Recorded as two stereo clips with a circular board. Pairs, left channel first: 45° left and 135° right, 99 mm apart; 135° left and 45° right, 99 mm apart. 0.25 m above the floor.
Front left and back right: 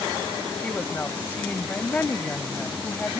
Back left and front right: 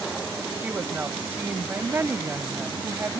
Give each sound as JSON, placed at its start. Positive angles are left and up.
{"t": 0.6, "sound": "a woman speaking", "azimuth_deg": -5, "distance_m": 1.0}